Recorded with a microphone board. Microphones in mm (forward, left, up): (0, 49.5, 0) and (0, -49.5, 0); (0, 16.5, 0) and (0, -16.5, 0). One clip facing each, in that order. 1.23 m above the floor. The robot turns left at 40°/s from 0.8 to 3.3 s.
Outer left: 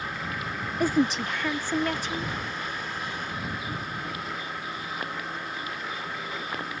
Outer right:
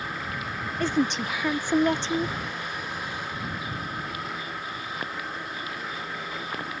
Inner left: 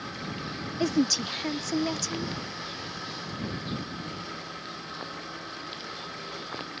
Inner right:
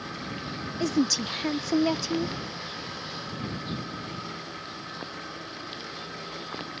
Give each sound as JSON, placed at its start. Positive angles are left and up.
{"t": 0.8, "sound": "a woman speaking", "azimuth_deg": 15}